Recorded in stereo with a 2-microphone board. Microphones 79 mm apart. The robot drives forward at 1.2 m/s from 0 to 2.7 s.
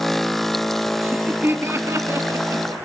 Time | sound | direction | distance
1.0 | laughter | 20° right (ahead or behind) | 2 m